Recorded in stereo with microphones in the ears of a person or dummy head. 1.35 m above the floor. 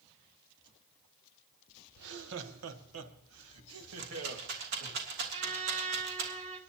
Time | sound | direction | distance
2.0 | laughter | 60° right (ahead or behind) | 1.1 m
4.0 | a rattle | 55° right (ahead or behind) | 3 m
5.3 | a trumpet | 30° right (ahead or behind) | 1.8 m